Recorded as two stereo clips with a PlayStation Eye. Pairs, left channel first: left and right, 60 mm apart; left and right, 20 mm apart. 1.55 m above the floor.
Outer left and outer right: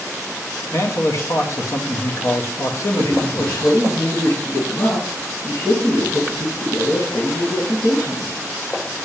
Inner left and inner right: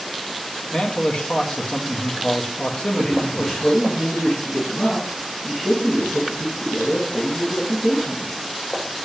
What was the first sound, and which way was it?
A man speaking, 55° left (ahead or behind).